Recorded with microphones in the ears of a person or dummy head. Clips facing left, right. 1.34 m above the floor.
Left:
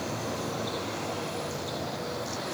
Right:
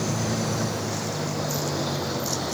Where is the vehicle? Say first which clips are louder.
Right 6 dB; 80° right; by 2.5 s 65° right (ahead or behind).